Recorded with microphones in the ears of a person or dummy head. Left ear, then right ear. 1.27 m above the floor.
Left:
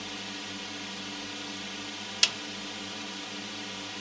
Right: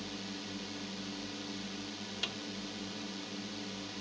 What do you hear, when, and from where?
0.0 s a drone: 40° left (ahead or behind)
2.2 s a snare drum: 70° left (ahead or behind)